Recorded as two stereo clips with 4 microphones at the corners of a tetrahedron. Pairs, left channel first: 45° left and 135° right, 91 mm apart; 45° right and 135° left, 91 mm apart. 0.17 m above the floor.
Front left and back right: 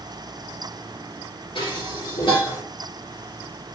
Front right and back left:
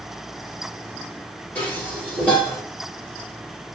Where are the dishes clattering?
30° left, 1.9 m.